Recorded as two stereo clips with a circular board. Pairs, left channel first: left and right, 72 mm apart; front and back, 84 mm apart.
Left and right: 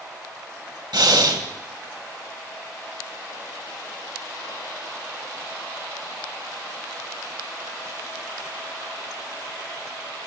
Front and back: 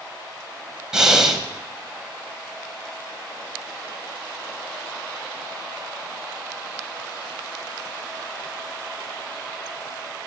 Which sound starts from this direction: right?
Breathing, at 0.9 s.